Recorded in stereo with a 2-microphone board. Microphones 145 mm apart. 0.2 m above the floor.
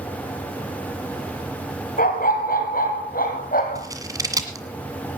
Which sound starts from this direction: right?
Scissors, at 3.8 s.